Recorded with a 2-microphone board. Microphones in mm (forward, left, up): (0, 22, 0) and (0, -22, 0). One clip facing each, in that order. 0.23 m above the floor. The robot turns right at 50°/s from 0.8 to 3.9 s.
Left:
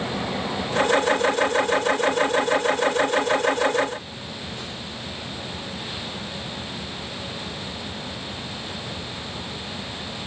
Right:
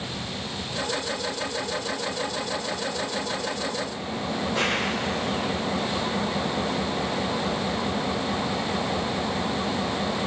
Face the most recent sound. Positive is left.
turn(degrees=-65)